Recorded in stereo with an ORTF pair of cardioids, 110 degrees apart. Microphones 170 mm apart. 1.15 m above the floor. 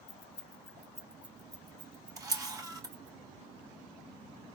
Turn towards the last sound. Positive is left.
turn(degrees=-20)